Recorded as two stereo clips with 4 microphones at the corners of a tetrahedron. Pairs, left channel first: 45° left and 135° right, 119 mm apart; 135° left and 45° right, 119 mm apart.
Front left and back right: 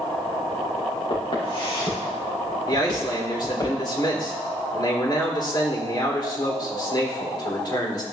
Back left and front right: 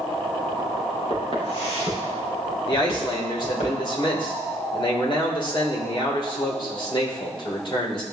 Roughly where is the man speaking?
Left.